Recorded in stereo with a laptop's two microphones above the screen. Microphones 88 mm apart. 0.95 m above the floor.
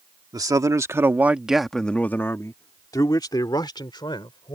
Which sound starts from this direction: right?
A man speaking, at 0.3 s.